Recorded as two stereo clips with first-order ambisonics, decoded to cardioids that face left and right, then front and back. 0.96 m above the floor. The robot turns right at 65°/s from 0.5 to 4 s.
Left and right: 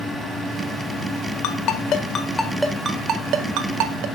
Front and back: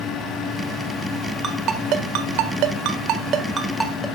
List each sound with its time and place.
1.4 s a ringtone: 110° left, 1.4 m; by 4.1 s 85° right, 1.4 m